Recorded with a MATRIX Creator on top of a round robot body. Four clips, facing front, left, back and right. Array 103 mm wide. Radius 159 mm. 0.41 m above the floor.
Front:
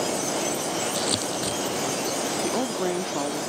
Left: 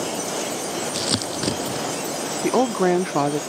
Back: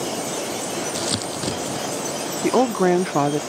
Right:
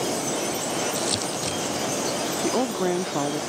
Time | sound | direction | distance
0.9 | crumpling | 110° left | ?
2.4 | a woman speaking | 145° left | ?